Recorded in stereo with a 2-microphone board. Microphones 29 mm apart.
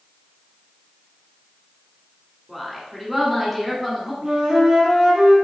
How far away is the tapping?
No tapping in this recording.